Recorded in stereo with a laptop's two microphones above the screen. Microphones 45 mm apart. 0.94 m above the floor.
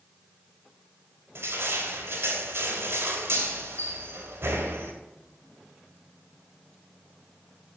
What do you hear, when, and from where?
1.4 s crushing: 75° right (ahead or behind), 2.5 m